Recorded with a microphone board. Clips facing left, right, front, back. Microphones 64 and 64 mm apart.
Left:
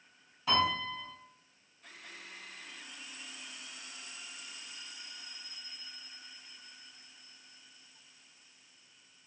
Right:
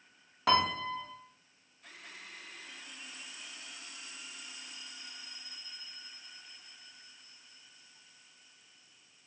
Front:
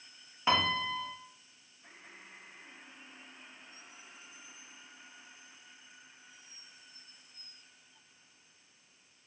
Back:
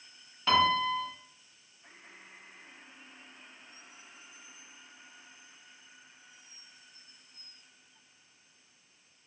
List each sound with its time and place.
0.5 s a piano: 75° right, 0.5 m